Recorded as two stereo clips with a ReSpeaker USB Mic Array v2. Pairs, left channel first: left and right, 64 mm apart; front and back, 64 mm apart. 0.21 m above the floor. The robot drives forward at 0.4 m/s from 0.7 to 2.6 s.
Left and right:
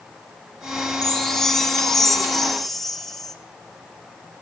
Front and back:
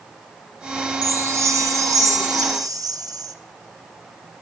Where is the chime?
165° left, 0.5 m; by 3.4 s 175° left, 1.1 m.